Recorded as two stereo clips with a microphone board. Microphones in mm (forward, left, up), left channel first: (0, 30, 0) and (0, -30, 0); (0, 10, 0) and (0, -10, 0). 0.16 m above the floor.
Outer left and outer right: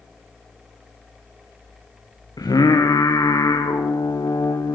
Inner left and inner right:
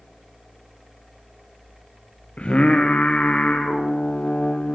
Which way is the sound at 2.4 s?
85° left.